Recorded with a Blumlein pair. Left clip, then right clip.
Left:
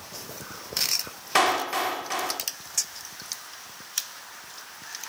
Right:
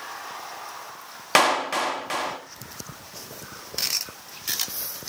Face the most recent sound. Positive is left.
turn(degrees=-40)